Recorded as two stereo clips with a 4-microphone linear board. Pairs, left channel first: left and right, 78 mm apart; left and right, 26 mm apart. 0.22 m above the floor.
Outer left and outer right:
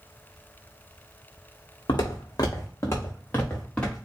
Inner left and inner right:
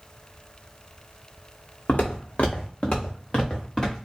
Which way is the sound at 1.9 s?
70° left (ahead or behind).